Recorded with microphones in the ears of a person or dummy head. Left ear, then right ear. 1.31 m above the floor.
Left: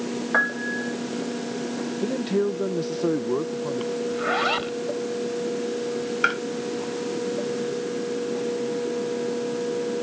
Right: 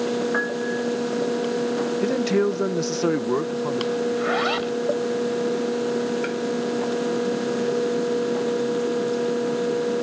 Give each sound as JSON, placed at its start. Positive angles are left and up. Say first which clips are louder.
{"t": 0.3, "sound": "a piano", "louder": "left 1 dB", "side_deg": 20}
{"t": 2.0, "sound": "a man speaking", "louder": "right 2 dB", "side_deg": -45}
{"t": 4.1, "sound": "a zipper", "louder": "left 2 dB", "side_deg": -5}
{"t": 6.2, "sound": "tapping", "louder": "left 5 dB", "side_deg": 45}